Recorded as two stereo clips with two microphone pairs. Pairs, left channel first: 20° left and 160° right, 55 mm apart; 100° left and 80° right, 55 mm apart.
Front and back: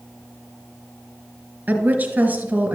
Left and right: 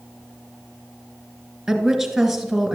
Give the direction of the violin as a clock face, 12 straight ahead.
I don't hear a violin.